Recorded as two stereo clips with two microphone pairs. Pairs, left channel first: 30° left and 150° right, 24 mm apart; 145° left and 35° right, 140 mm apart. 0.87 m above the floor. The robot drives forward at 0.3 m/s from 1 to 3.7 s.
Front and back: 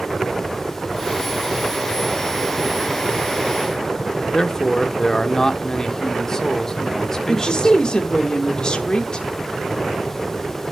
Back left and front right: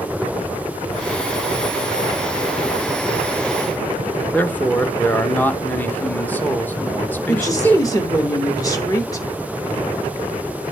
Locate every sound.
4.3 s a man speaking: 75° left, 0.6 m
7.3 s a woman speaking: 80° left, 1.0 m